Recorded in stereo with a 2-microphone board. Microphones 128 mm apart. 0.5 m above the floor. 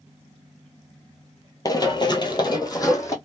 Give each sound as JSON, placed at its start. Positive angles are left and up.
{"t": 1.6, "sound": "running footsteps", "side_deg": 30, "distance_m": 0.6}